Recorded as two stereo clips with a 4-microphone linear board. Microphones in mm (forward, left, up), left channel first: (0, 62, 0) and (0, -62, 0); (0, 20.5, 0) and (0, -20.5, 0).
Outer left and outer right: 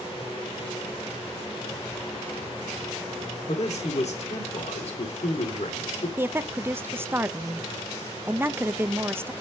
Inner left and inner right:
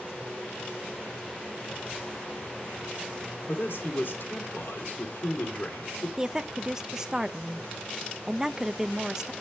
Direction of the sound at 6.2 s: 20° right (ahead or behind).